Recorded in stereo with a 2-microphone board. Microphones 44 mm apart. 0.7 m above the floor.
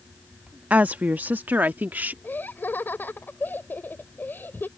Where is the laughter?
60° left (ahead or behind).